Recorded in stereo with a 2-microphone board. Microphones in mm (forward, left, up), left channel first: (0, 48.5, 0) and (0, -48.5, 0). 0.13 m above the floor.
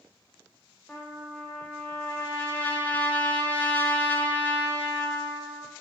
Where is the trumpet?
15° left (ahead or behind), 0.8 m.